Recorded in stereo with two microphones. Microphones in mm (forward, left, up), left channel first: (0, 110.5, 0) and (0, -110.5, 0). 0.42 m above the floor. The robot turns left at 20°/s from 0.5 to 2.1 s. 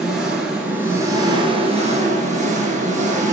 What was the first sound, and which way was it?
An engine running, 5° right.